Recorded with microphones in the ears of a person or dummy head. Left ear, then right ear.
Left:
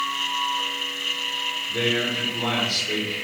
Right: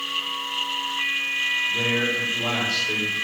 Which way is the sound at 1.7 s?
30° left (ahead or behind).